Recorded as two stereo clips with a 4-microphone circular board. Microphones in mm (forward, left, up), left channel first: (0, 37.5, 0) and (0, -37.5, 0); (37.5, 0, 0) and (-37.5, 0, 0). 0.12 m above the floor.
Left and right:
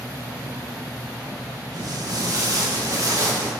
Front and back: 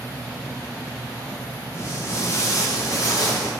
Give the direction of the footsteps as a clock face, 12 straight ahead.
2 o'clock.